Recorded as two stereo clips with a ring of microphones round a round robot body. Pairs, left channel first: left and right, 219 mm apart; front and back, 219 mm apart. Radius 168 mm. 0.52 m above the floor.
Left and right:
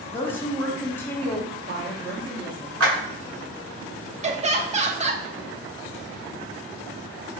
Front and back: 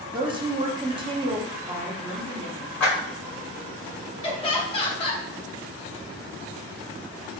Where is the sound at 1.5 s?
110° right, 1.1 m.